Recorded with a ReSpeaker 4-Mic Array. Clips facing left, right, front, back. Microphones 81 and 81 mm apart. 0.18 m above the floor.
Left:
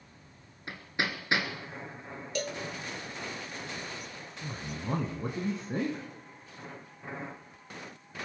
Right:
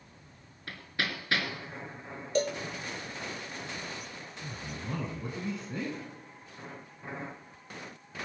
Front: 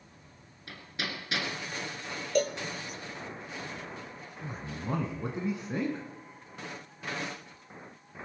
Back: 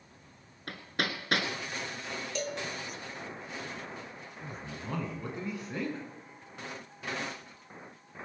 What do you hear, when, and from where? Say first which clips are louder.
0.7 s hammering: left 2 dB, back 4 dB; 155° left, 1.7 m
2.4 s a cowbell: right 6 dB, front 9 dB; 35° right, 1.1 m
4.4 s a man speaking: left 3 dB, front 4 dB; 60° left, 1.8 m